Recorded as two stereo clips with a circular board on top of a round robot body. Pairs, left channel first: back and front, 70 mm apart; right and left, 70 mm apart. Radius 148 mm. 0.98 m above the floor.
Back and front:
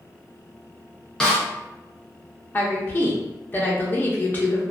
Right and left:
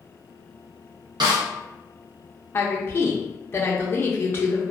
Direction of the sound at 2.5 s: 130° right.